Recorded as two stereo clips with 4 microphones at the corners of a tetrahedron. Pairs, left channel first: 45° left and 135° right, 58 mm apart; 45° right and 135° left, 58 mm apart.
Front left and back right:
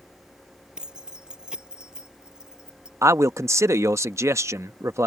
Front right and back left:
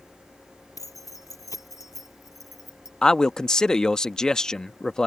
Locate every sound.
0.8 s keys jangling: 55° right
3.0 s a man speaking: 120° right